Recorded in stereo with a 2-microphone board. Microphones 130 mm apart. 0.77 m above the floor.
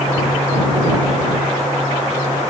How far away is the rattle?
I don't hear a rattle.